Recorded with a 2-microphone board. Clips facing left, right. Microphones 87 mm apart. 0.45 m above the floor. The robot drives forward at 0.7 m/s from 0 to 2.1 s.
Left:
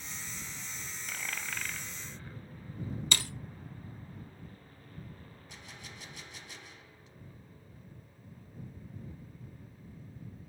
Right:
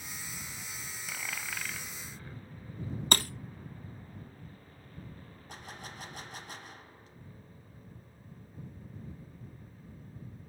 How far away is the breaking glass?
About 0.7 m.